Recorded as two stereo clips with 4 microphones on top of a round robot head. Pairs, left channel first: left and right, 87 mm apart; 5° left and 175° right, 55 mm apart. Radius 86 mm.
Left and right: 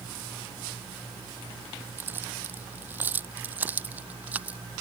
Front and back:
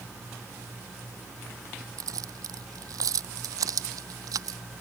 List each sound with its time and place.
2.0 s keys jangling: 160° right; by 4.6 s 165° right